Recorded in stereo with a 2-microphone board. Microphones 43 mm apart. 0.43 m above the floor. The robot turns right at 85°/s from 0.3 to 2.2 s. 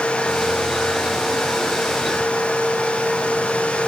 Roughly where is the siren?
I don't hear a siren.